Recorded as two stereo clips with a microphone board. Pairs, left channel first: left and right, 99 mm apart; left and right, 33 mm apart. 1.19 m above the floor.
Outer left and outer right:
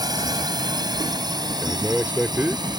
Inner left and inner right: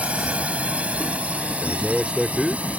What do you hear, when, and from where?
0.0 s a drone: 40° right (ahead or behind); by 2.8 s 45° right (ahead or behind)
1.6 s a man speaking: 20° right (ahead or behind)